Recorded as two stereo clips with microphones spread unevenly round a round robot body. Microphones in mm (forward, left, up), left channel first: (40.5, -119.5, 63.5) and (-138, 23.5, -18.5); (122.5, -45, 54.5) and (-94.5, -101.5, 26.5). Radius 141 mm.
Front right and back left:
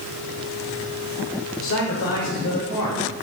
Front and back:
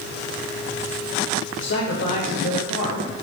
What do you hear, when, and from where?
1.6 s a man speaking: 5° left, 1.3 m; by 3.0 s 10° right, 2.5 m